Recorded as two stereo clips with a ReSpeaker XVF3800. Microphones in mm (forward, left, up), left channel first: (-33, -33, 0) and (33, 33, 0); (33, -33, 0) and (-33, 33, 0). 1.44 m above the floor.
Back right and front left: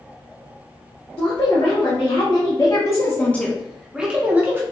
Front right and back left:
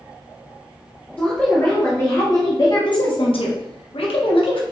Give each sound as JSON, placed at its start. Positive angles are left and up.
{"t": 1.2, "sound": "a woman speaking", "azimuth_deg": -120, "distance_m": 1.4}